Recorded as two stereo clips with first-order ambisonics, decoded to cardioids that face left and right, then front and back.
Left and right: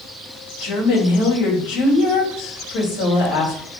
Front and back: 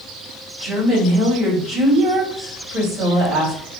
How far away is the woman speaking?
About 2 m.